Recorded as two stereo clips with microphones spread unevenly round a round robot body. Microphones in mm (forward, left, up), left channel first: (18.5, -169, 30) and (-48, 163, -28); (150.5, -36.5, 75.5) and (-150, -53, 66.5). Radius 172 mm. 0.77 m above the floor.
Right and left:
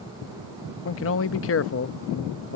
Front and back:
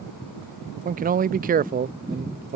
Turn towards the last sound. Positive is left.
turn(degrees=-125)